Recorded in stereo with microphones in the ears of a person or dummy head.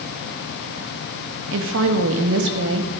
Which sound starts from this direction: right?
A woman speaking, at 1.5 s.